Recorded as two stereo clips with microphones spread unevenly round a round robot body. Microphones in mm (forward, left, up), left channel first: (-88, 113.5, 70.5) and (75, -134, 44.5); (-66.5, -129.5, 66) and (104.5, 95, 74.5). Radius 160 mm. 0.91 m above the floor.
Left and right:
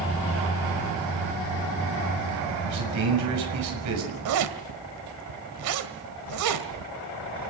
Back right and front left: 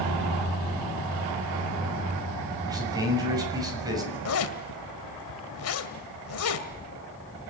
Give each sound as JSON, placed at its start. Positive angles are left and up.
{"t": 2.6, "sound": "a man speaking", "azimuth_deg": -25, "distance_m": 6.5}
{"t": 4.2, "sound": "a zipper", "azimuth_deg": -90, "distance_m": 2.0}